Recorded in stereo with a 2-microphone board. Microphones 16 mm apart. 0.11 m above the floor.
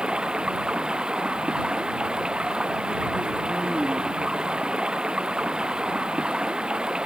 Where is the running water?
60° right (ahead or behind).